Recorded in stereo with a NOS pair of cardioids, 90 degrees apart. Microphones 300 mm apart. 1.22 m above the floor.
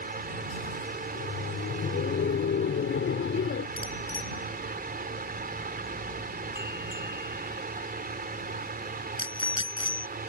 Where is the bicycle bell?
15° left.